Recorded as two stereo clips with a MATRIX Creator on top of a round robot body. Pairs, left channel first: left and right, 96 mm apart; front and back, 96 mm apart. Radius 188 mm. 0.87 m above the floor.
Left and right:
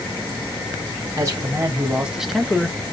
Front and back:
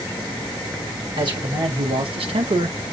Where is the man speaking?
145° right, 1.4 m; by 2.9 s 150° left, 0.9 m.